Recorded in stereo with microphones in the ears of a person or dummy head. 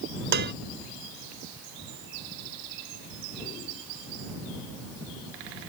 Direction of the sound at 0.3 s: 50° right (ahead or behind).